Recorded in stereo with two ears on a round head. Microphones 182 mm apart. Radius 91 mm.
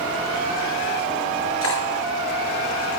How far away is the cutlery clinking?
About 6.5 m.